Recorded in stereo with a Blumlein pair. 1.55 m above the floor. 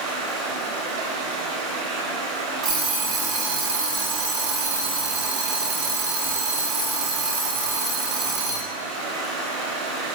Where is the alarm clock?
40° right, 2.0 m.